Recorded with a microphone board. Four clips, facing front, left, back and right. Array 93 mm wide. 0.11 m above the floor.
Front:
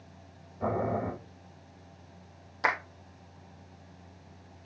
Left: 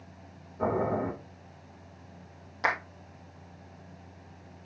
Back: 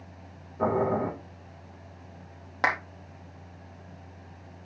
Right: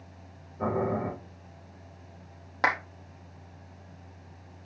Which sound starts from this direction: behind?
Boiling, at 0.6 s.